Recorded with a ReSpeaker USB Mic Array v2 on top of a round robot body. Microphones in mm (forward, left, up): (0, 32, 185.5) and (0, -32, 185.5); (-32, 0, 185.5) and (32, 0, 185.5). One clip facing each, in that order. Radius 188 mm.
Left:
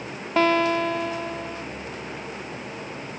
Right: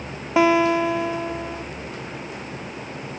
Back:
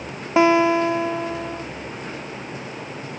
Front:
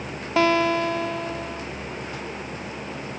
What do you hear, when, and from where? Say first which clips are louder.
0.4 s a guitar: right 3 dB, back 4 dB; 150° right